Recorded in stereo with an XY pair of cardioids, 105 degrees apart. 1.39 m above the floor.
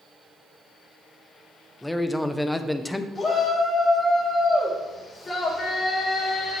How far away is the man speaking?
About 0.8 m.